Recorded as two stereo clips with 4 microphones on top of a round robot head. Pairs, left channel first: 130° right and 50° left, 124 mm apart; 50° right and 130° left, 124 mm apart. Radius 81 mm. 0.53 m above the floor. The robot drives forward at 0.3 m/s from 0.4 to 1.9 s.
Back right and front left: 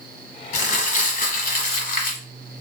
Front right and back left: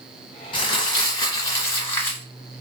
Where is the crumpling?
105° right, 1.1 m; by 2.2 s 120° right, 1.3 m.